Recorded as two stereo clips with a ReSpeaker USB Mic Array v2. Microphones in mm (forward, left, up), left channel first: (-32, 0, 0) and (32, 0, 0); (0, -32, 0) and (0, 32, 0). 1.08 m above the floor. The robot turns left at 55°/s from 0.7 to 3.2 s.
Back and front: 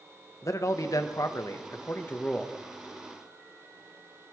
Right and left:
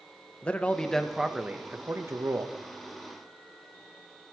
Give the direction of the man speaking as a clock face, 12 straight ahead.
5 o'clock.